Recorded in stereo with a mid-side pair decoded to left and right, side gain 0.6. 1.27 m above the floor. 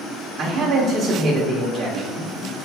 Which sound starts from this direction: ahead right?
A man speaking, at 0.4 s.